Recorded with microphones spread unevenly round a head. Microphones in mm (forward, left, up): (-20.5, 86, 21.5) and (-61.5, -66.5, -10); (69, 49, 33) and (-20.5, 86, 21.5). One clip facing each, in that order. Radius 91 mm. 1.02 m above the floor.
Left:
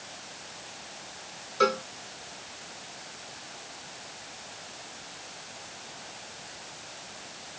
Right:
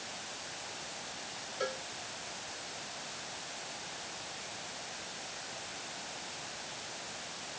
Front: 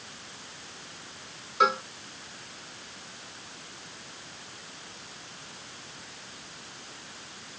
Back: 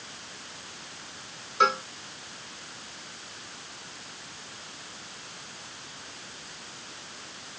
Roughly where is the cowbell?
Ahead left.